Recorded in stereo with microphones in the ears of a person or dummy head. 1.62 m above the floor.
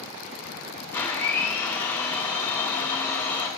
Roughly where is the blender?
Centre.